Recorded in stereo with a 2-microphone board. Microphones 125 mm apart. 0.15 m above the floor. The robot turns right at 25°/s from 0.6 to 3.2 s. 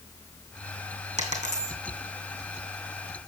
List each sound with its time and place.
1.2 s a dropped coin: 60° right (ahead or behind), 2.5 m; by 1.8 s 75° right (ahead or behind), 2.5 m